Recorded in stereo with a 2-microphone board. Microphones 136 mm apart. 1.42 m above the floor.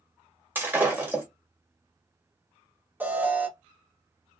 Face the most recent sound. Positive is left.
turn(degrees=-15)  # may be behind; listen again after turning